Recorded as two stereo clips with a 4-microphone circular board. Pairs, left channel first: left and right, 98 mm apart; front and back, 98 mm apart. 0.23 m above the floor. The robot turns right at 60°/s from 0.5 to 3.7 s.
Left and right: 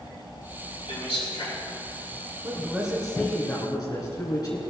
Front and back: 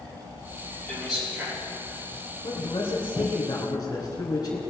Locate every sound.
0.9 s a man speaking: 80° left, 5 m; by 1.6 s 120° left, 5 m
2.4 s a man speaking: 30° right, 3 m; by 4.6 s 45° left, 3 m